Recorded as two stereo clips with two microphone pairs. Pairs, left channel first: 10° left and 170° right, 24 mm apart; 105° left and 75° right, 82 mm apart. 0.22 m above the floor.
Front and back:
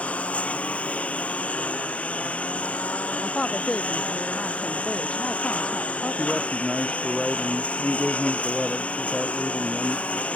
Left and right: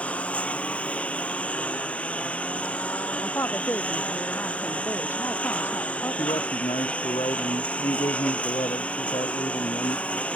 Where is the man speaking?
100° left.